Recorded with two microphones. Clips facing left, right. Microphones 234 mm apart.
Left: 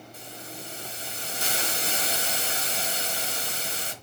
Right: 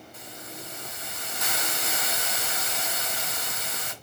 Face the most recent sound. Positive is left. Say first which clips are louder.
# even
turn(degrees=30)  # may be behind; listen again after turning